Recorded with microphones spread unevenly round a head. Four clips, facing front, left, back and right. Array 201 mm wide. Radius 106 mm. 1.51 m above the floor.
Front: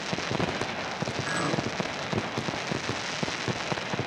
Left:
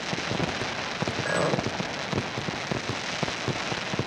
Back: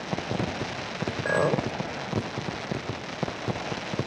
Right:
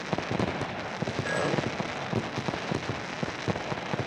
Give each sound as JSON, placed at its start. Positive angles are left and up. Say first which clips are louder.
{"t": 1.2, "sound": "a clink", "louder": "left 3 dB, back 7 dB", "azimuth_deg": 175, "distance_m": 4.0}